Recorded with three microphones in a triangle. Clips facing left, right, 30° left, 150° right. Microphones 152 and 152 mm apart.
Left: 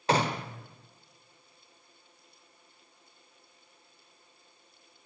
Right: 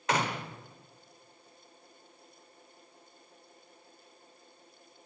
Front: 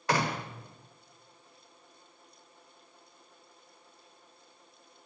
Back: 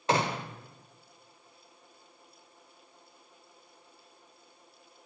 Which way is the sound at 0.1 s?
145° left.